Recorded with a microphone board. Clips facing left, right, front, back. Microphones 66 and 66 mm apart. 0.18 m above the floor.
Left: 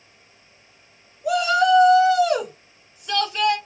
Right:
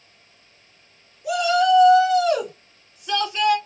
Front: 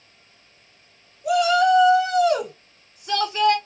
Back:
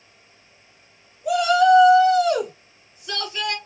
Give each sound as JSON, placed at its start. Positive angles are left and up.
{"t": 1.2, "sound": "a shout", "azimuth_deg": 70, "distance_m": 1.8}